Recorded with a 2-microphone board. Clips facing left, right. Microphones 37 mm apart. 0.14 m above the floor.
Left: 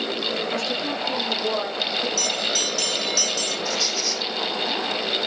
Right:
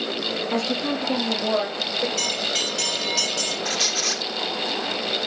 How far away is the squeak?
About 0.7 m.